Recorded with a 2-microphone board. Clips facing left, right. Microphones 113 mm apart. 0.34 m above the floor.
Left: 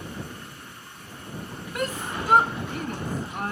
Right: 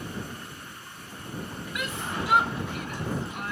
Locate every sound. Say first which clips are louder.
1.8 s a shout: left 3 dB; 40° left (ahead or behind)